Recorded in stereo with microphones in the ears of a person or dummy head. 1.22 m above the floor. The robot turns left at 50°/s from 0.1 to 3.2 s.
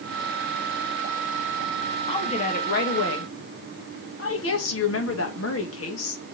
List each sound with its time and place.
2.1 s a woman speaking: 160° left, 1.7 m; by 6.2 s 105° left, 1.7 m